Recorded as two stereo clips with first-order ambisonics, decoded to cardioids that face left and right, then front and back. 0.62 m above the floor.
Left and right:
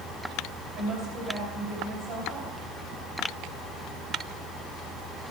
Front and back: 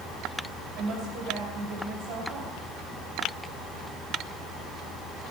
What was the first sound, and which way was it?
A woman speaking, 135° right.